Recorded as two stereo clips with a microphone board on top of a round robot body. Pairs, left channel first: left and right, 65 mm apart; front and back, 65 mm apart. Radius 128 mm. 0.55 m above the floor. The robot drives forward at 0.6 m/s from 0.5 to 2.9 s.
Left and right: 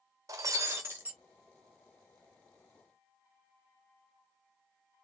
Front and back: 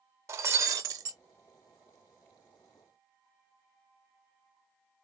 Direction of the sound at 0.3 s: 135° right.